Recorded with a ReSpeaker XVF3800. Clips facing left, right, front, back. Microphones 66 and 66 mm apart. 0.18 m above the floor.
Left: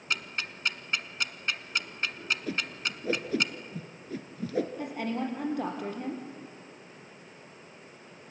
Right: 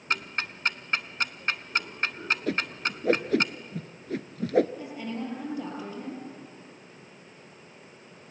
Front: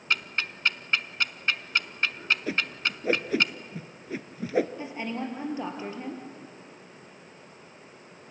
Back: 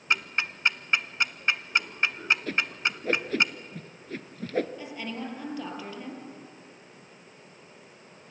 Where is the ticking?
115° right, 0.8 m.